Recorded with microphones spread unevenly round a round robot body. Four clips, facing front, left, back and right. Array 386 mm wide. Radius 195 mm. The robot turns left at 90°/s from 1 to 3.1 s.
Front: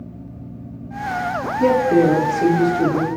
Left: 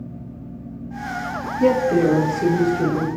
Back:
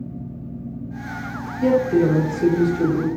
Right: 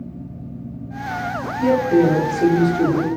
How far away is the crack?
No crack in this recording.